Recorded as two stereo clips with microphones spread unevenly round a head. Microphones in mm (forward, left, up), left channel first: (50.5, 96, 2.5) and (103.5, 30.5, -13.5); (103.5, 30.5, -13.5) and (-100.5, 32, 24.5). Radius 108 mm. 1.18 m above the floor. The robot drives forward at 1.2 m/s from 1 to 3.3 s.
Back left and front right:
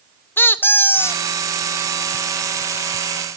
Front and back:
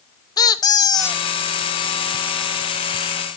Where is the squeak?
75° left, 0.7 m; by 1.2 s 105° left, 0.7 m.